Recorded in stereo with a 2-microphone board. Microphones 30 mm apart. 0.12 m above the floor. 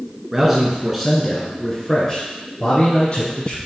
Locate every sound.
0.3 s a man speaking: 10° right (ahead or behind), 1.7 m; by 3.6 s 35° left (ahead or behind), 2.5 m